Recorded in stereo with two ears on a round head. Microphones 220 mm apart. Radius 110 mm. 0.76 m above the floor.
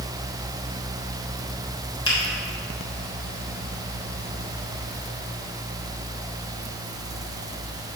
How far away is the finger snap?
About 3 m.